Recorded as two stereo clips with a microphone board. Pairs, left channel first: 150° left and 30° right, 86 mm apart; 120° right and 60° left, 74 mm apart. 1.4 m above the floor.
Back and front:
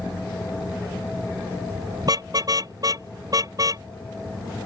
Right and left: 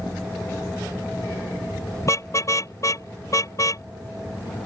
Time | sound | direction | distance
2.0 | a car horn | 75° right | ?